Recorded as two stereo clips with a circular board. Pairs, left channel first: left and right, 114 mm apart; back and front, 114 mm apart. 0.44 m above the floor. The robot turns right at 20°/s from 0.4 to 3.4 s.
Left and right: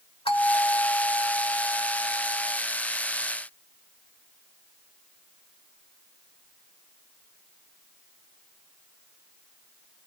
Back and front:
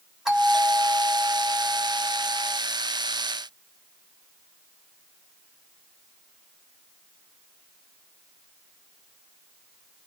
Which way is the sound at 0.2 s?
85° left.